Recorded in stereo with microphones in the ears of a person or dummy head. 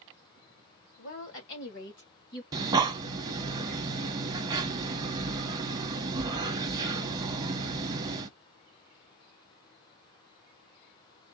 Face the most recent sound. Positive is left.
turn(degrees=-20)  # may be behind; listen again after turning